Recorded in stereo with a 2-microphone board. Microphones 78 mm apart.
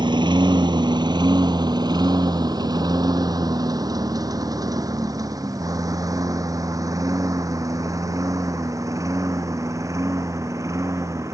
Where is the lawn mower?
70° right (ahead or behind); by 11.3 s 40° right (ahead or behind).